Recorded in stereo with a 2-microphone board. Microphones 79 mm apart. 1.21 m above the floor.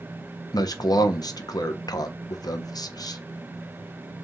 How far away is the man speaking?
About 0.7 m.